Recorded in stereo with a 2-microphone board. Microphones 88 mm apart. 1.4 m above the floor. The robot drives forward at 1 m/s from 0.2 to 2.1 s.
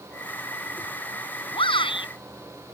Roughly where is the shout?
Left.